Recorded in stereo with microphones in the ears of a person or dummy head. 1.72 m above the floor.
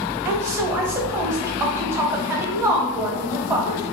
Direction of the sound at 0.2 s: 15° right (ahead or behind).